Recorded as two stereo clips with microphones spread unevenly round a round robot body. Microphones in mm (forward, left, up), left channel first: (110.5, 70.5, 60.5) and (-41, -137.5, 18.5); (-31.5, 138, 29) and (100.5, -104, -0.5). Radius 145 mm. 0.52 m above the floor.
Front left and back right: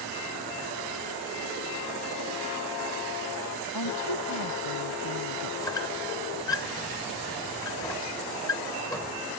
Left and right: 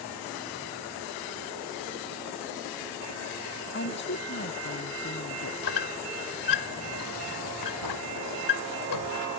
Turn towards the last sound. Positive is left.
turn(degrees=135)